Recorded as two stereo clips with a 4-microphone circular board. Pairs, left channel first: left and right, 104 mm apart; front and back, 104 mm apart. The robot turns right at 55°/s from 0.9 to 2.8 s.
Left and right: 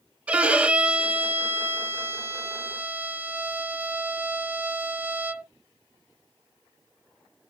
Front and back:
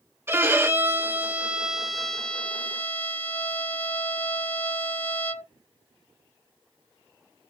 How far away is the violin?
About 0.5 m.